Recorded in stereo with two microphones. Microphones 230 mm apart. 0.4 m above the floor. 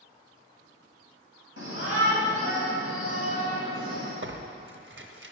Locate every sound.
1.6 s a shout: 65° left (ahead or behind), 3 m; by 4.1 s 55° left (ahead or behind), 3.5 m
4.2 s tearing paper: 50° right (ahead or behind), 0.6 m